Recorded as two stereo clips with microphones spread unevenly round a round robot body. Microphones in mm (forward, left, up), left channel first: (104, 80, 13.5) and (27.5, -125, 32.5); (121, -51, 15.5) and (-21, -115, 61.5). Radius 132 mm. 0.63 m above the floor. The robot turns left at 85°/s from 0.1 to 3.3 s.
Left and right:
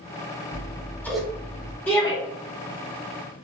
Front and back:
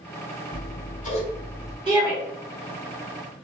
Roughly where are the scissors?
Ahead left.